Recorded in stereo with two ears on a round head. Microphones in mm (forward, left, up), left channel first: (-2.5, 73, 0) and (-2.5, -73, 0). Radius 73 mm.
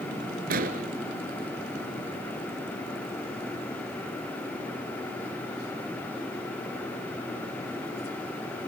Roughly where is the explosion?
Right.